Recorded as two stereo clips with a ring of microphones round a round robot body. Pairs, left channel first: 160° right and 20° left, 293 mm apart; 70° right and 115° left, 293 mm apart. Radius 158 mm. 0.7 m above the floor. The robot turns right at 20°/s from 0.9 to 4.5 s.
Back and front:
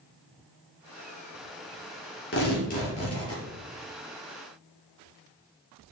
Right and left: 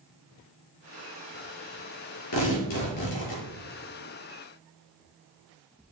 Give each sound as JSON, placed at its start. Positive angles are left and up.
{"t": 2.3, "sound": "tearing paper", "azimuth_deg": -100, "distance_m": 3.0}